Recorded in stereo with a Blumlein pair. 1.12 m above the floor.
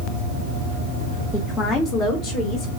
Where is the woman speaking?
20° left, 0.6 m; by 2.7 s 30° left, 1.4 m.